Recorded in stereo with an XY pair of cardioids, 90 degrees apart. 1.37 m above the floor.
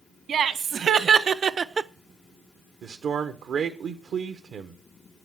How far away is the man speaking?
About 0.9 m.